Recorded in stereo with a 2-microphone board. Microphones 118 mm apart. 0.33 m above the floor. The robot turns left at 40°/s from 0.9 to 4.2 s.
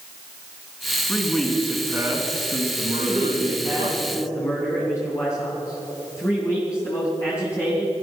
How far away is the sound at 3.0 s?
About 4 m.